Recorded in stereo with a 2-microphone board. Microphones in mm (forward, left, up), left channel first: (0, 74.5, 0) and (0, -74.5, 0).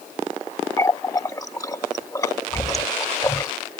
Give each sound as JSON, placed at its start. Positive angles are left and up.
{"t": 0.8, "sound": "a running tap", "side_deg": 20}